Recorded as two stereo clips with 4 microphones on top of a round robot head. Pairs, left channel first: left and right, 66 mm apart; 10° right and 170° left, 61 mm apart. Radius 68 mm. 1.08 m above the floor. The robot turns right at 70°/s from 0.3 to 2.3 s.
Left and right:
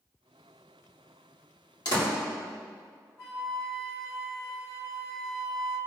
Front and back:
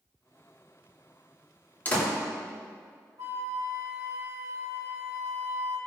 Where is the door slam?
50° left, 2.5 m; by 2.1 s 70° left, 2.5 m.